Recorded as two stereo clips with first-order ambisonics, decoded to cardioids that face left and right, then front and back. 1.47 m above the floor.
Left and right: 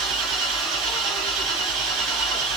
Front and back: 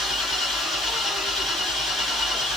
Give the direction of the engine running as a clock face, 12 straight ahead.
2 o'clock.